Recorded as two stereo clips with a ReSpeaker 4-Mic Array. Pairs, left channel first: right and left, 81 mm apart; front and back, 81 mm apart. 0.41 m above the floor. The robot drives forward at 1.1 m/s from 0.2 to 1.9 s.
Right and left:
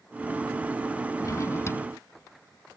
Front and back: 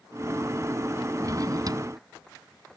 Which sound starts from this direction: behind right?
A drawer, at 1.2 s.